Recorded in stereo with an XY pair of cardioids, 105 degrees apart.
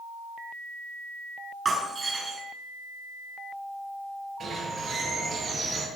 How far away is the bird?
About 6 m.